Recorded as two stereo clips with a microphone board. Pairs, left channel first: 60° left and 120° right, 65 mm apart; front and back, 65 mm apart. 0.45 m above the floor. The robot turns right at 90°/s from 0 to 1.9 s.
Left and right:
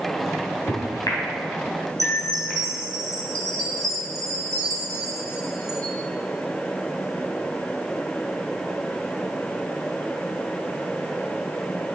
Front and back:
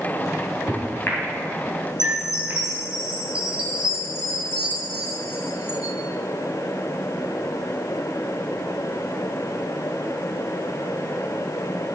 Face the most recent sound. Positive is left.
turn(degrees=-100)